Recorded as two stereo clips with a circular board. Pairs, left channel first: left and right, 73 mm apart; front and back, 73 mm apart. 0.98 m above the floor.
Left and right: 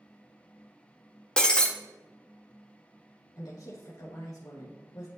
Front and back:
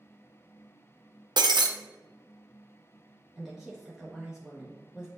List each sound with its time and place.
1.4 s breaking glass: 170° left, 0.7 m
3.4 s a woman speaking: 100° left, 0.9 m